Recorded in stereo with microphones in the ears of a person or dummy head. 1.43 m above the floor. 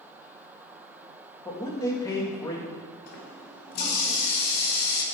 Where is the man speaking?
15° left (ahead or behind), 1.5 m.